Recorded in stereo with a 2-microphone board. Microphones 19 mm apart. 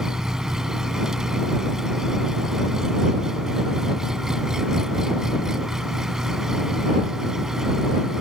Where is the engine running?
30° right (ahead or behind).